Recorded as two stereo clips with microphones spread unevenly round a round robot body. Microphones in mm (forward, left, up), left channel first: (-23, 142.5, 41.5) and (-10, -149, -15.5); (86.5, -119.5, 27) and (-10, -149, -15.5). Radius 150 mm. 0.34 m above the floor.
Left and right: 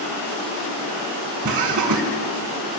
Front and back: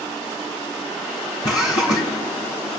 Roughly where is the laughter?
Ahead right.